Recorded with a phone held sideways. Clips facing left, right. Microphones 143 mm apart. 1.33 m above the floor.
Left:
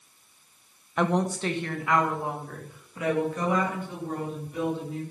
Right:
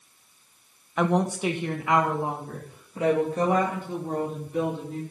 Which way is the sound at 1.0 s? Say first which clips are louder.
Right 2 dB; centre (ahead or behind).